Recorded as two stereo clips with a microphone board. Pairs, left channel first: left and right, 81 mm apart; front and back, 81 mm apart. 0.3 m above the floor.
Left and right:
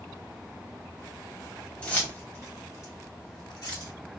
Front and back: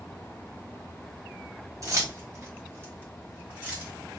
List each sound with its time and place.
1.8 s keys jangling: 160° left, 1.1 m; by 3.9 s 110° left, 2 m